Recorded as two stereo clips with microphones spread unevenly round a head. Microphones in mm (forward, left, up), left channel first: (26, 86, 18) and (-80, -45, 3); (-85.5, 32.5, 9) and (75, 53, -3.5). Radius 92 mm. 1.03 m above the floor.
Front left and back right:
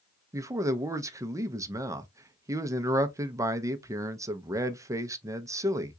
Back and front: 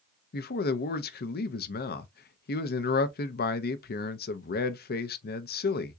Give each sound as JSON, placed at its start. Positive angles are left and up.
{"t": 0.3, "sound": "a man speaking", "azimuth_deg": 160, "distance_m": 0.6}